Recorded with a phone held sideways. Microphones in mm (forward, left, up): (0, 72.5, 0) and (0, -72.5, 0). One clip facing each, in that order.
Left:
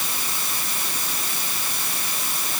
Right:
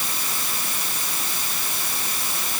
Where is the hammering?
I don't hear hammering.